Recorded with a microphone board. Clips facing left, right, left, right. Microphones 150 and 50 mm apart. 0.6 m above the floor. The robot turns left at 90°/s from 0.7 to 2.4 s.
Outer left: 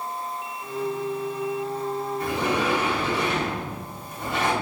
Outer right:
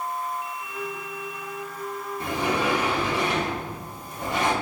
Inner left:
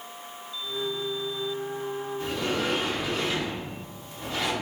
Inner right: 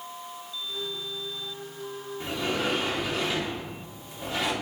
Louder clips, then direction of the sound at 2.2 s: Outer right 1 dB, inner right 1 dB; 25° right (ahead or behind).